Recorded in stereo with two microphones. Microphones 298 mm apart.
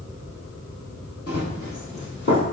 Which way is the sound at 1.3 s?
55° left (ahead or behind).